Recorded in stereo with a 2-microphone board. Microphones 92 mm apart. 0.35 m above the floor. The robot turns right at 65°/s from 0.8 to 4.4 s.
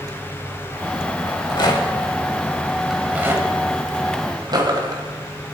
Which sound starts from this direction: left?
A rattle, at 1.3 s.